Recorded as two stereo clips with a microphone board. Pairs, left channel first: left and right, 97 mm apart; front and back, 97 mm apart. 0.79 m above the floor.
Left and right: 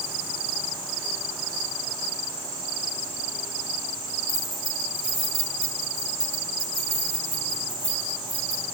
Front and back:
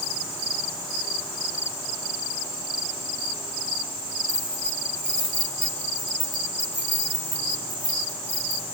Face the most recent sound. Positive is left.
turn(degrees=105)